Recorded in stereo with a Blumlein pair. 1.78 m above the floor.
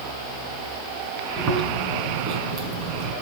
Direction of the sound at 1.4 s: 35° right.